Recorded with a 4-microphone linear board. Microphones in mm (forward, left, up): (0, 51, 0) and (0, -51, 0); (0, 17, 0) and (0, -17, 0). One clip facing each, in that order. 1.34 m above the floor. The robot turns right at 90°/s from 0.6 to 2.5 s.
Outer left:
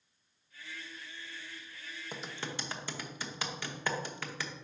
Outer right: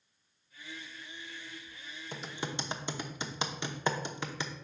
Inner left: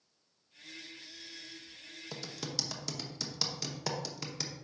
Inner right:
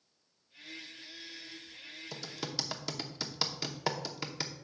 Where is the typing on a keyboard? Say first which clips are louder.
Outer right 3 dB, inner right 1 dB; 10° left (ahead or behind), 0.7 m; by 4.5 s 20° right (ahead or behind), 0.7 m.